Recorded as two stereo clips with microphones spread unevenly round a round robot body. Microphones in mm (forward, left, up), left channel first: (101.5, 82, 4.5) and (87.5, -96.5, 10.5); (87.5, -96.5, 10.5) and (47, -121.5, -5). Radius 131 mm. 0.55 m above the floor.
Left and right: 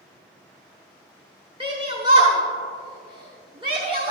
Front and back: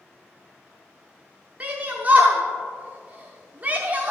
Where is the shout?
155° right, 0.8 m.